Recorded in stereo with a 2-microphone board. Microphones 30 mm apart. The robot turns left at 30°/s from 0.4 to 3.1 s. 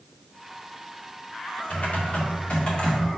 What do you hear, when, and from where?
1.7 s typing on a keyboard: 70° left, 2 m; by 3.2 s 25° left, 2 m